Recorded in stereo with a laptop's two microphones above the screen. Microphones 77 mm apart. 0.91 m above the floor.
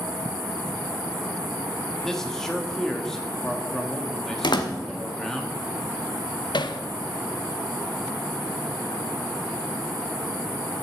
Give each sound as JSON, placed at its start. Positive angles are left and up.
{"t": 2.0, "sound": "a man speaking", "side_deg": 5, "distance_m": 1.2}
{"t": 4.4, "sound": "a door slam", "side_deg": 75, "distance_m": 1.0}
{"t": 6.5, "sound": "hammering", "side_deg": 75, "distance_m": 0.7}